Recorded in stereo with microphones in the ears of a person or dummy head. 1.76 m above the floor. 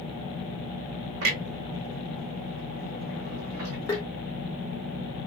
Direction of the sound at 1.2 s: 80° right.